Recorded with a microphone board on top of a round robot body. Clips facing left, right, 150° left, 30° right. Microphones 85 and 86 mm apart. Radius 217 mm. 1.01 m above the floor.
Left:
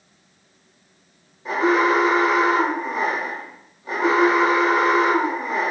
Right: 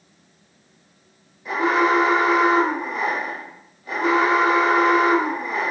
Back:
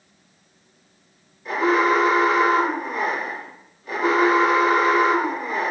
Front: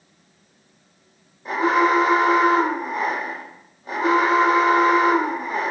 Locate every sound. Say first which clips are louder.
1.4 s an alarm: left 1 dB, front 1 dB; 30° left, 1.9 m